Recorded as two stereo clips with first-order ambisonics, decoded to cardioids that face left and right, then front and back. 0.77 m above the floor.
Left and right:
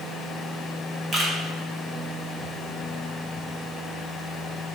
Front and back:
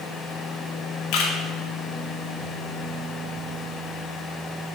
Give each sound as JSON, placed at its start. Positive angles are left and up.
{"t": 1.1, "sound": "a camera shutter", "azimuth_deg": -25, "distance_m": 0.6}